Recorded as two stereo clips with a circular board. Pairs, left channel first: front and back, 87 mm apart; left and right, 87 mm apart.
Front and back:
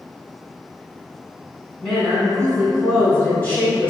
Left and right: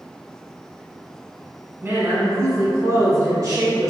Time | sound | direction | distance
1.8 | a woman speaking | 75° right | 1.7 m